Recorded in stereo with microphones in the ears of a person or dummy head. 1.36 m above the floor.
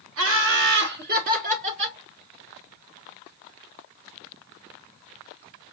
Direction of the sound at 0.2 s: 75° right (ahead or behind).